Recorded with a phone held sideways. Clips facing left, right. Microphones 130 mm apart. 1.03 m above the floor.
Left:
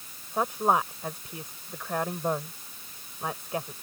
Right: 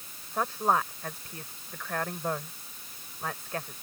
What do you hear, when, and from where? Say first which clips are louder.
0.3 s a woman speaking: left 2 dB; 15° left (ahead or behind)